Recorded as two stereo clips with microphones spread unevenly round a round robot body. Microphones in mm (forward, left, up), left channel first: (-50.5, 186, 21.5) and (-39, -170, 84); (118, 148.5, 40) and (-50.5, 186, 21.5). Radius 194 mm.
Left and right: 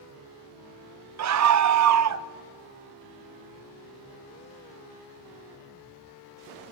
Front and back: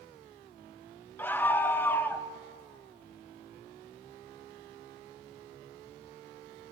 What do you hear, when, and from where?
1.2 s a scream: 95° right, 0.7 m